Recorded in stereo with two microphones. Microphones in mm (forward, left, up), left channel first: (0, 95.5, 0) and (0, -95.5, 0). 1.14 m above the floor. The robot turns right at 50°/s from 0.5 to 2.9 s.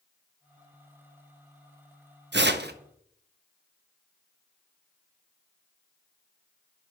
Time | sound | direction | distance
2.3 | tearing paper | 70° right (ahead or behind) | 0.6 m